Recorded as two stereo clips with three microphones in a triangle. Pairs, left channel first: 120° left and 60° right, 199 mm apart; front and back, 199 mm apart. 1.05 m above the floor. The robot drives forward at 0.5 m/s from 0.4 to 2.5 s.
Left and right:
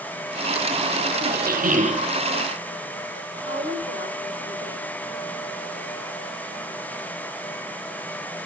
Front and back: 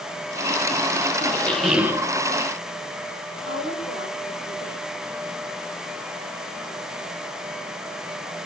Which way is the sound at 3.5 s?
160° left.